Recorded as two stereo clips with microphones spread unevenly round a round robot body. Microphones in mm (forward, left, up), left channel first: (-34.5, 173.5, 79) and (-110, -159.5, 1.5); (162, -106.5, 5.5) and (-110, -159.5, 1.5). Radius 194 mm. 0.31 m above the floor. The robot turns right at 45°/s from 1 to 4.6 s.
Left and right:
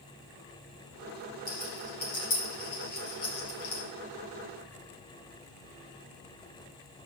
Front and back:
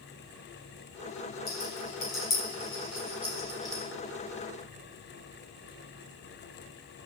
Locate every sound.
1.5 s a rattle: 15° right, 4.5 m; by 3.8 s 90° left, 4.5 m